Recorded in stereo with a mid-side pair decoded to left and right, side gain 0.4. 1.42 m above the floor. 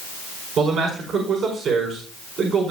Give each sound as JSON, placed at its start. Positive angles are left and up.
{"t": 0.6, "sound": "a man speaking", "azimuth_deg": -70, "distance_m": 5.0}